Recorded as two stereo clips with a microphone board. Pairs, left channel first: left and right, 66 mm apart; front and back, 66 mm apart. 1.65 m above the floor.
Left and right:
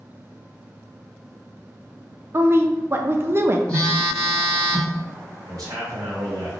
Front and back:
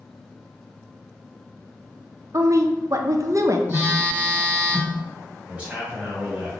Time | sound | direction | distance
2.3 | a woman speaking | 140° right | 0.5 m
3.7 | a phone buzzing | 155° left | 1.7 m
5.5 | a man speaking | 110° right | 1.4 m